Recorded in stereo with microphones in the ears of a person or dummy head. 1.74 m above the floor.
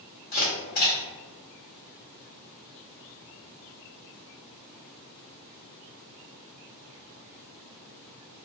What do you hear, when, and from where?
0.3 s a camera shutter: 45° left (ahead or behind), 1.1 m